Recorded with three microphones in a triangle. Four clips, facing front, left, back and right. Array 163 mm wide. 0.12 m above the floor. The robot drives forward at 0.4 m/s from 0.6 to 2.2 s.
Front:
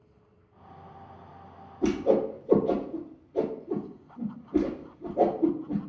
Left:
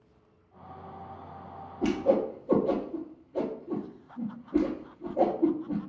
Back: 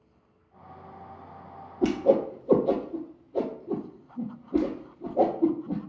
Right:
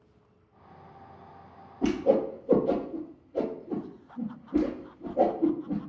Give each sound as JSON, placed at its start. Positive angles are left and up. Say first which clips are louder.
{"t": 1.8, "sound": "a whoosh", "louder": "right 1 dB, back 2 dB", "azimuth_deg": 180, "distance_m": 0.9}